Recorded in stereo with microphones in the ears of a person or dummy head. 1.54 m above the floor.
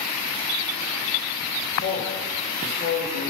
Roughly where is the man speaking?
Left.